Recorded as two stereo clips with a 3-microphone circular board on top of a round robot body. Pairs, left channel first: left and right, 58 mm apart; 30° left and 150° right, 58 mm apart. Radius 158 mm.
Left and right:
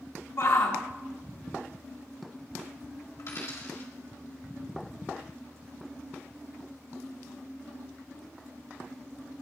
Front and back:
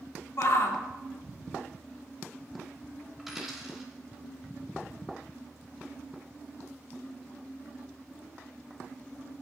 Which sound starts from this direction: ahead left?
A shout, at 0.4 s.